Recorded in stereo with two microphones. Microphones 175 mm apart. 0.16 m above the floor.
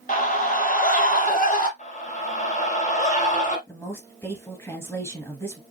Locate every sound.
0.1 s a scream: 50° left (ahead or behind), 3.5 m
1.8 s a scream: 50° left (ahead or behind), 2 m
3.7 s a woman speaking: 15° left (ahead or behind), 2 m